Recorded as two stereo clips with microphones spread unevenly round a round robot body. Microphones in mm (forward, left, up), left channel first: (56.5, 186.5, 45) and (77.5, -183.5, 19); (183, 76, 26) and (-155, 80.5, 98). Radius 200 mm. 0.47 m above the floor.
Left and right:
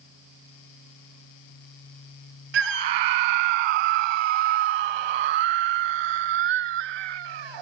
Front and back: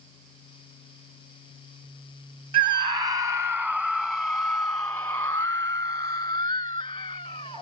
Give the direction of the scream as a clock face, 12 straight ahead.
3 o'clock.